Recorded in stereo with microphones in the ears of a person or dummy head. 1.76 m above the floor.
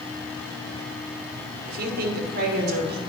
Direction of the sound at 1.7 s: 55° right (ahead or behind).